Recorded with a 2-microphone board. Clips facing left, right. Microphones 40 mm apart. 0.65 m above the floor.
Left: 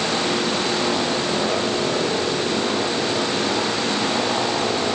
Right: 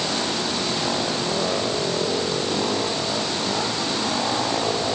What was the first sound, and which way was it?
Only background noise.